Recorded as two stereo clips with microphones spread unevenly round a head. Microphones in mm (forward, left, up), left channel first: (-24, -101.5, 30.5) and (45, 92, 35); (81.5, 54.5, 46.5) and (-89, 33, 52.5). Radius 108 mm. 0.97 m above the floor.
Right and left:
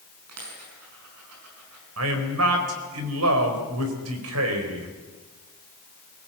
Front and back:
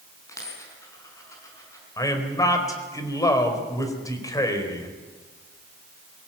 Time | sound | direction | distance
0.3 | a dropped coin | 80° left | 6 m
2.0 | a man speaking | 75° left | 4.5 m